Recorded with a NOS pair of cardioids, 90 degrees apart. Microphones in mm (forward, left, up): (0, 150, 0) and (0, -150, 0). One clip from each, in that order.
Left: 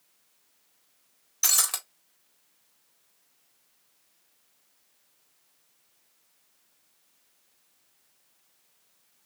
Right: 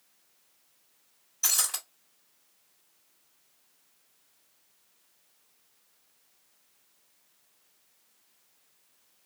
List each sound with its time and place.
1.4 s breaking glass: 60° left, 2 m